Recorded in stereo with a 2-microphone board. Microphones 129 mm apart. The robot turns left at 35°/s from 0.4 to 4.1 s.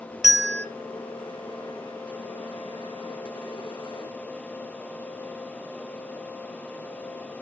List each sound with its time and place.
0.2 s a bell: centre (ahead or behind), 1.0 m; by 0.7 s 5° left (ahead or behind), 1.0 m